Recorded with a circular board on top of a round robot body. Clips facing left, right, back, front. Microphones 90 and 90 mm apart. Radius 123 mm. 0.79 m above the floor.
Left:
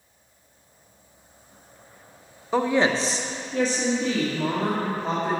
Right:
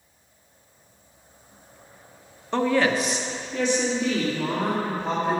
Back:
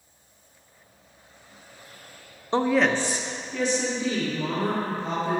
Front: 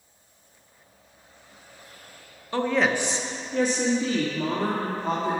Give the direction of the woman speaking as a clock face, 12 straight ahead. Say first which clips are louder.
Even, back 2 dB; 6 o'clock.